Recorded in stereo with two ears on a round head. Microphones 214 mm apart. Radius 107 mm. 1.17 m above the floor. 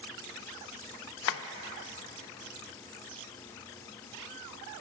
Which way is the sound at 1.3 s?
60° left (ahead or behind).